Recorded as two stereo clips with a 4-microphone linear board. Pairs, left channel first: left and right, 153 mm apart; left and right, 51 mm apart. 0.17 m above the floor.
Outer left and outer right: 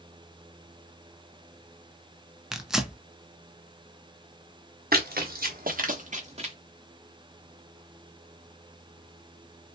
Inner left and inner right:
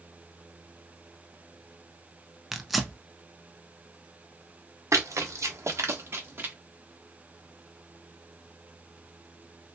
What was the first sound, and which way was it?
Tearing paper, 5° right (ahead or behind).